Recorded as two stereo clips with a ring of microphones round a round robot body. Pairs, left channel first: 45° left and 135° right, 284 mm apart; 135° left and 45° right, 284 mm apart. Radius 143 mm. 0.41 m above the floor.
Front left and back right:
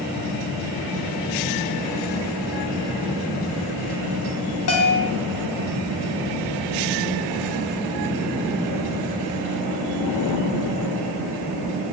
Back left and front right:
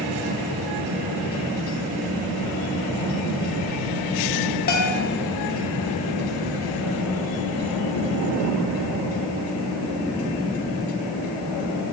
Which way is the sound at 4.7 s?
80° left.